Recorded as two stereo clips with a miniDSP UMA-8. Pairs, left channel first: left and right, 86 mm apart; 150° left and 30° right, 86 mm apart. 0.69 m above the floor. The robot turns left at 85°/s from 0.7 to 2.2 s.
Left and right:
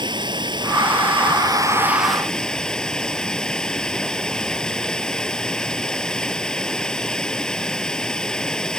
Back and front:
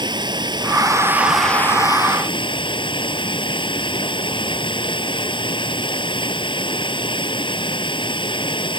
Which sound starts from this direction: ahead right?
Running water, at 0.0 s.